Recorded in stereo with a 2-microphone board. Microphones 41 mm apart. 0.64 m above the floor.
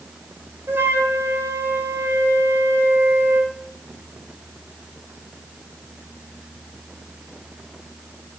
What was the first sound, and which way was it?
A flute, 75° right (ahead or behind).